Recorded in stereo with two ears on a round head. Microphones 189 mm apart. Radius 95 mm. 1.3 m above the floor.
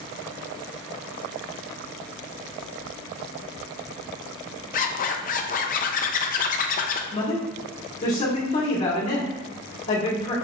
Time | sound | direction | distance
4.7 | a zipper | 40° left (ahead or behind) | 0.5 m
7.1 | a man speaking | 35° left (ahead or behind) | 1.9 m